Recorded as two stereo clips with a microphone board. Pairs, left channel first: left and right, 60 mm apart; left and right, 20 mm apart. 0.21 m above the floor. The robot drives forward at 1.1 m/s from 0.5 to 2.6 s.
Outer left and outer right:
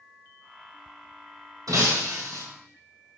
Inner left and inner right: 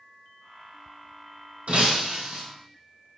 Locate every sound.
1.7 s breaking glass: 80° right, 4.5 m; by 2.4 s 70° right (ahead or behind), 4.5 m